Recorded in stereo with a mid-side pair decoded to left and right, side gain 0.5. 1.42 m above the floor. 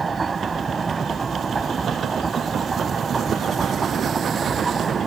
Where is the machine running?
30° right.